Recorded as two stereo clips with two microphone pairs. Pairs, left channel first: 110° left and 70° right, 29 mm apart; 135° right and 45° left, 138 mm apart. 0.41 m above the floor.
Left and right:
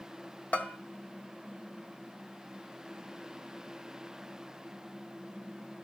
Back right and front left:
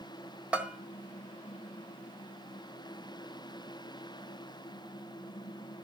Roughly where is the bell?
Behind left.